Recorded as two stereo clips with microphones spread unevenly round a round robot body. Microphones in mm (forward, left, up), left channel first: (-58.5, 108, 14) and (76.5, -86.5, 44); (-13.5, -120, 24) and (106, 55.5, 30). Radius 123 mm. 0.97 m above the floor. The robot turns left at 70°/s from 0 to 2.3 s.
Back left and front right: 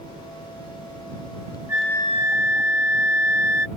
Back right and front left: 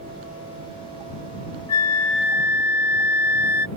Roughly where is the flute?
Behind right.